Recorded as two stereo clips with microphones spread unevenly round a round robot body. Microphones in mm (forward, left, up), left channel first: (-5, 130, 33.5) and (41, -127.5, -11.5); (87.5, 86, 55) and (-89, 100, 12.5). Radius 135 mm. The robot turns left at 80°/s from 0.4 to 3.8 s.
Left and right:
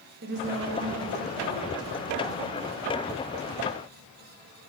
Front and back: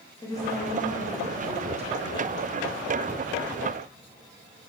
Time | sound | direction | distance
0.2 | a woman speaking | 85° right | 0.9 m